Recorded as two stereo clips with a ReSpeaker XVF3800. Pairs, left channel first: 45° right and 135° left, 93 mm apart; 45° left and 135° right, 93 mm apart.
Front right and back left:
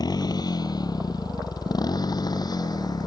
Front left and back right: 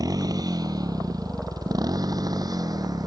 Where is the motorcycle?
90° right.